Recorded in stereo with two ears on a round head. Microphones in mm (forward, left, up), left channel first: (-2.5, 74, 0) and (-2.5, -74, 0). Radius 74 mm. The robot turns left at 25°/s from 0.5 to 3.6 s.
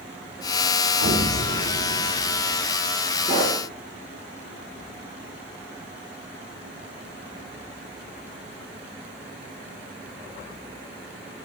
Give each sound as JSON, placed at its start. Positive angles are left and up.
{"t": 1.0, "sound": "an explosion", "azimuth_deg": -95, "distance_m": 2.5}
{"t": 3.2, "sound": "a pop", "side_deg": 45, "distance_m": 6.0}